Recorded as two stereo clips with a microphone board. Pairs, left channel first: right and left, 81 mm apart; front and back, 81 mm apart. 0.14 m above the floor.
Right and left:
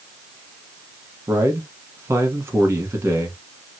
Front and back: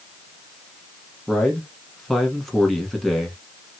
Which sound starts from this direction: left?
A man speaking, at 1.3 s.